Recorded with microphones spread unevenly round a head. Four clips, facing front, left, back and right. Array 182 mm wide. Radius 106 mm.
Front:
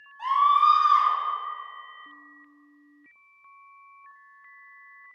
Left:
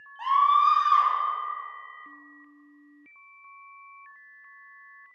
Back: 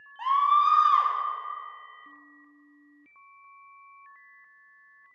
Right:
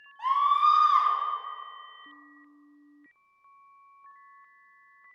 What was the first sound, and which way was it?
A scream, 140° left.